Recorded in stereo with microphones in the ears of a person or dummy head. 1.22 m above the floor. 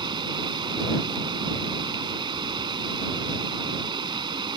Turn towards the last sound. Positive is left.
turn(degrees=-25)  # may be behind; listen again after turning